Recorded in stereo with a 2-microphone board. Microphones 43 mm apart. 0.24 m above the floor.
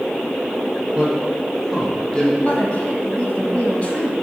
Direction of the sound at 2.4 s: 30° left (ahead or behind).